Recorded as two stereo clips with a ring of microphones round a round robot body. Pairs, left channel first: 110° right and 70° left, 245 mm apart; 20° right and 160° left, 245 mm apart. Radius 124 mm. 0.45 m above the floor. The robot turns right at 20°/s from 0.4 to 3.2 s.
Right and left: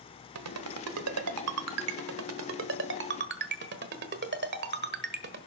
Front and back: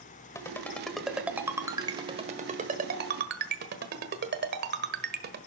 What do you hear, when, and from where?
0.3 s a ringtone: 55° left, 1.3 m; by 5.4 s 110° left, 1.3 m